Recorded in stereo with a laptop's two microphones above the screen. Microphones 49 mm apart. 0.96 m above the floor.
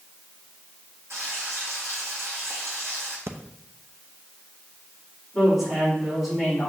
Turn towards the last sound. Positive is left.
turn(degrees=0)  # may be behind; listen again after turning